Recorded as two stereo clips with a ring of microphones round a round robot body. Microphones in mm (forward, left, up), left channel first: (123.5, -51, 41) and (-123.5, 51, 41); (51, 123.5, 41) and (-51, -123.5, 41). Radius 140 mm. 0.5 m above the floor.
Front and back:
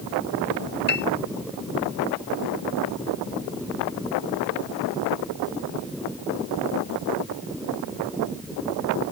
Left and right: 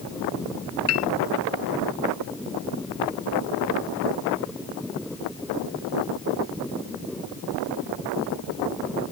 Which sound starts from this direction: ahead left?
A piano, at 0.9 s.